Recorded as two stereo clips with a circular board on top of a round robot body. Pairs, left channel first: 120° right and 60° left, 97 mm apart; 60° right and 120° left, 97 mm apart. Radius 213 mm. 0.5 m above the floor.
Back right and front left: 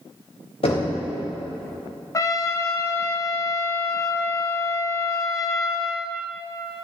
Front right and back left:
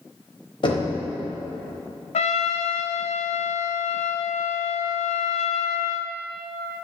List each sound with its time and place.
0.6 s knocking: 95° right, 3.5 m
2.1 s a trumpet: 60° right, 0.6 m